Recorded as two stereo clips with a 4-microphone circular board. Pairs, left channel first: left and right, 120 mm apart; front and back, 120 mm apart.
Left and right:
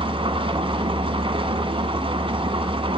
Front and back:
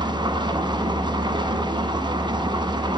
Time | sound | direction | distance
0.0 | an engine running | 130° right | 1.1 m